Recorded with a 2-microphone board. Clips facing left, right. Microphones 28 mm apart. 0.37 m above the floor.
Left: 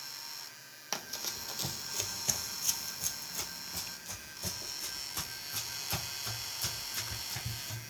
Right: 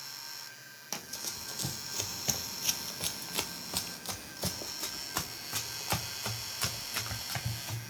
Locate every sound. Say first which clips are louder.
0.9 s running footsteps: left 2 dB; 20° left (ahead or behind), 1.1 m; by 7.9 s 65° right (ahead or behind), 3 m